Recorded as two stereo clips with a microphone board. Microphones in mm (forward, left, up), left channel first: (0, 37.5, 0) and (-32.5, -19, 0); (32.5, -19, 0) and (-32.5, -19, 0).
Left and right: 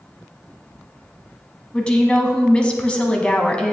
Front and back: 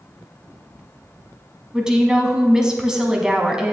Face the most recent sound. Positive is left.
turn(degrees=115)